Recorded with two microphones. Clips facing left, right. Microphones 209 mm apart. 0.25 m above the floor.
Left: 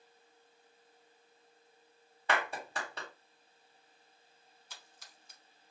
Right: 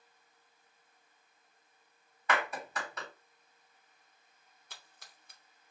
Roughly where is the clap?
Left.